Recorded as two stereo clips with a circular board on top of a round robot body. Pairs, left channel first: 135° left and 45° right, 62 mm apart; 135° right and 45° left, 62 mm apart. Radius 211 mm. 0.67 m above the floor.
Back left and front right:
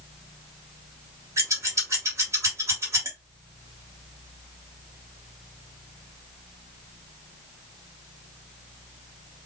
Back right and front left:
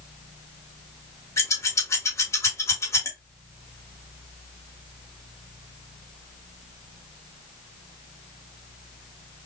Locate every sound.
1.4 s scissors: 90° right, 2.5 m